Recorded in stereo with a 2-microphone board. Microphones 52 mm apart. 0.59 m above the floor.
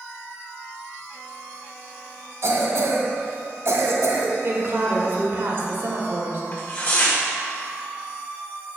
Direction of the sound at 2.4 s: 65° right (ahead or behind).